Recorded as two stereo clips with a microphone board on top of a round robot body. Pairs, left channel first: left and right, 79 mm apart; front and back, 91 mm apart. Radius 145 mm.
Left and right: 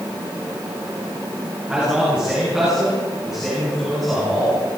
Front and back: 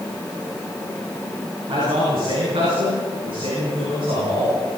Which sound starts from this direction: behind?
A man speaking, at 1.7 s.